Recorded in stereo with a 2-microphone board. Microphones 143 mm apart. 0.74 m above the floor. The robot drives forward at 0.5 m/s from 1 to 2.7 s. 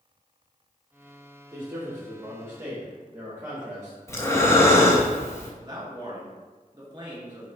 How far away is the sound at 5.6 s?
About 1.5 m.